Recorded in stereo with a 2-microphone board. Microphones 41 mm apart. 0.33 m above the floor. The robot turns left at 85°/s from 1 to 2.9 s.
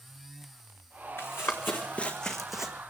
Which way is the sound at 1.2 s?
80° left.